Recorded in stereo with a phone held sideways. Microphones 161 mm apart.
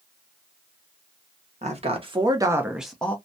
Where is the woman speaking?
50° right (ahead or behind), 0.9 m; by 3.1 s 10° left (ahead or behind), 0.7 m.